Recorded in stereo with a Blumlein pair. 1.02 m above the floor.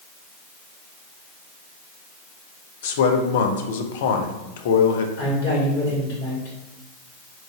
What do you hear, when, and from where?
2.8 s a man speaking: 55° left, 0.5 m
5.2 s a man speaking: 60° left, 1.9 m